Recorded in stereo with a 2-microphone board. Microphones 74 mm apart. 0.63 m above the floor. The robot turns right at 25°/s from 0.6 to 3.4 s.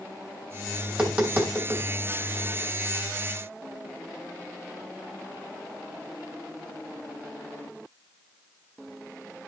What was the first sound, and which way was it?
Tapping, 15° right (ahead or behind).